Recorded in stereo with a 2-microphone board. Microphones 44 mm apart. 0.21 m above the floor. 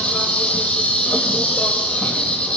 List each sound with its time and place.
0.0 s an insect: 25° left (ahead or behind), 0.9 m